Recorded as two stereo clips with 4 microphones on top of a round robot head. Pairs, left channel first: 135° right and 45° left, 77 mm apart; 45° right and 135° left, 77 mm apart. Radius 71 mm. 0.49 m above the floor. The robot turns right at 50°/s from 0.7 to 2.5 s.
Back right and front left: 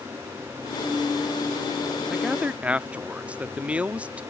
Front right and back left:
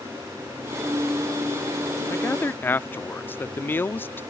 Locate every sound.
2.1 s a man speaking: 35° right; by 4.2 s 15° right